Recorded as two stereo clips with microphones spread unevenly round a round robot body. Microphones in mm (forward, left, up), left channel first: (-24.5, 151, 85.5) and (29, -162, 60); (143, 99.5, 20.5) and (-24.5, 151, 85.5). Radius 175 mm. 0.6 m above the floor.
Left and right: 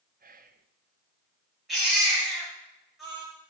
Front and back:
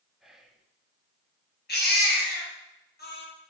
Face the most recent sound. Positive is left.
turn(degrees=10)